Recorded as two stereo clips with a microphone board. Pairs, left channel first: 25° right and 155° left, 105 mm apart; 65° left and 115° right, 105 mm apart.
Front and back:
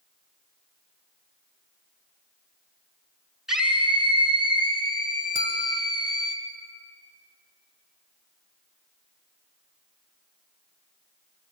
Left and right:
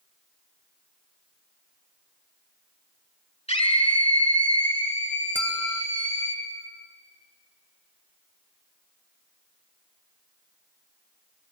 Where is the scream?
70° left, 4.5 m.